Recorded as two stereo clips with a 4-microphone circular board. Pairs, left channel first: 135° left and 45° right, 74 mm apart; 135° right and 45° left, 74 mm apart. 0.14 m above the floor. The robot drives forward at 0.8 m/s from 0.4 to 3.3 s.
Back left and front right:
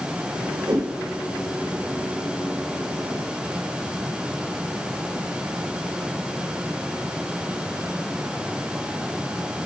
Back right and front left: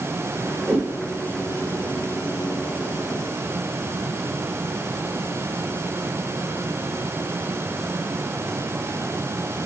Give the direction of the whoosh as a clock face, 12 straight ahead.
1 o'clock.